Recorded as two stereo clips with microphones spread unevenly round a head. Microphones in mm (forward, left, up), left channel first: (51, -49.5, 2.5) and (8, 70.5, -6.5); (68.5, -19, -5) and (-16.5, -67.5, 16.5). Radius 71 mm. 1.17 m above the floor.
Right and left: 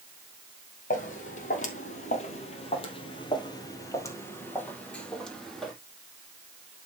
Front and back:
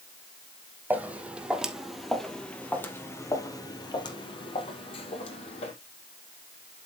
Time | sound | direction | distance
0.9 | footsteps | 85° right | 2.5 m